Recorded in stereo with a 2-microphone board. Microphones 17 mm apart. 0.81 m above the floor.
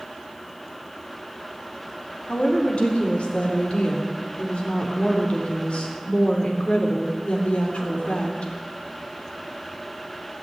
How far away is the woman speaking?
About 3 m.